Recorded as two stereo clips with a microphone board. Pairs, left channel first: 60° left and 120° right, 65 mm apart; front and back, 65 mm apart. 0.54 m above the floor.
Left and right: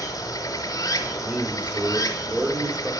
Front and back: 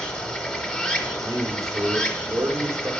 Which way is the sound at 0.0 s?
75° left.